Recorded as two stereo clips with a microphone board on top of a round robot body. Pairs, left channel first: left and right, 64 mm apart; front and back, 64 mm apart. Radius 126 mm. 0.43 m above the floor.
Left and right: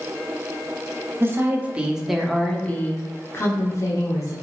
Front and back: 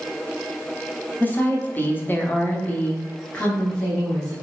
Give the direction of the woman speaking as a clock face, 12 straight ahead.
2 o'clock.